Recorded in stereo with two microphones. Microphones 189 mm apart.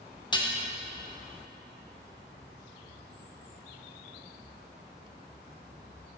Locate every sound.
0.3 s dishes clattering: 25° left (ahead or behind), 0.7 m